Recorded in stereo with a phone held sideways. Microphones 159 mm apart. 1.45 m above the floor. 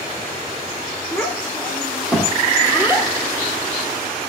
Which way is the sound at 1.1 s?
10° left (ahead or behind).